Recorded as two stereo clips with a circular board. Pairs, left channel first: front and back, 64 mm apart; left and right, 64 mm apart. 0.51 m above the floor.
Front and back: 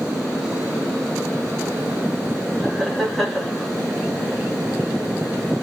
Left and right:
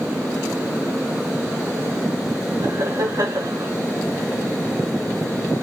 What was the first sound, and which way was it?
Laughter, 90° right.